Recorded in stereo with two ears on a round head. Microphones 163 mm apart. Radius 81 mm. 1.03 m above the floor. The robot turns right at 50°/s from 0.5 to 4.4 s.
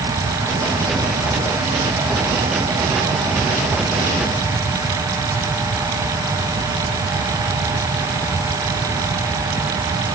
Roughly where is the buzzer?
I don't hear a buzzer.